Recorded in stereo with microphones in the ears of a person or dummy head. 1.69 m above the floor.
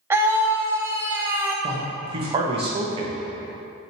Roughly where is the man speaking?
Right.